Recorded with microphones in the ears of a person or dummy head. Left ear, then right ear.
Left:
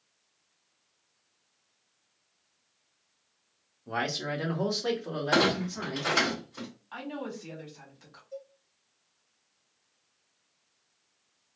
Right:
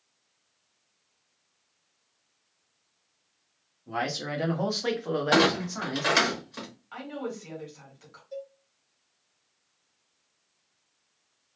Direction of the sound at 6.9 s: 5° right (ahead or behind).